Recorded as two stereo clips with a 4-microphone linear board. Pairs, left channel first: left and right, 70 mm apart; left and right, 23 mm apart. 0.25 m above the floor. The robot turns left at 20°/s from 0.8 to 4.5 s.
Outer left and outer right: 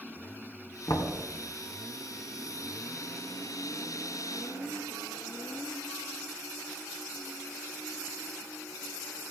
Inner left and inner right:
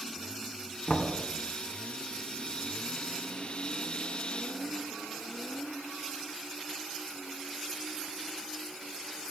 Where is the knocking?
60° left (ahead or behind), 1.8 m.